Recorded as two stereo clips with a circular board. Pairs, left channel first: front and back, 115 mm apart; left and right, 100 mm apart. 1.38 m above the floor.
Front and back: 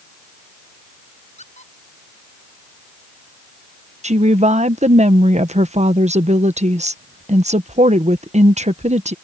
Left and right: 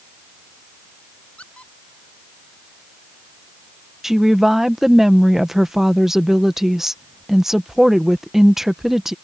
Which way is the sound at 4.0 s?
175° right.